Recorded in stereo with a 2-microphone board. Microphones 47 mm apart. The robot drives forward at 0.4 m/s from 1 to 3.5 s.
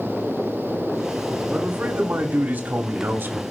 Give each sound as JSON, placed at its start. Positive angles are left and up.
{"t": 1.5, "sound": "a man speaking", "side_deg": -40, "distance_m": 2.5}